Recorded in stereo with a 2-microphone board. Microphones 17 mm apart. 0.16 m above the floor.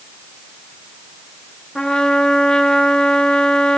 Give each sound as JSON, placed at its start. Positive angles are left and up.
{"t": 1.8, "sound": "a trumpet", "side_deg": 50, "distance_m": 1.0}